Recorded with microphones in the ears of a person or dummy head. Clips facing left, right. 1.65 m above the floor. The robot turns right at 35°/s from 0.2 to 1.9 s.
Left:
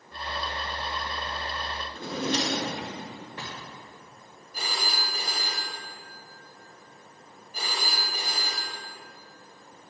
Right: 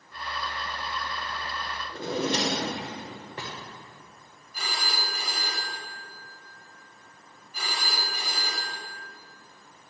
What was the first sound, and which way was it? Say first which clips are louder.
A drawer: right 2 dB; 35° right (ahead or behind).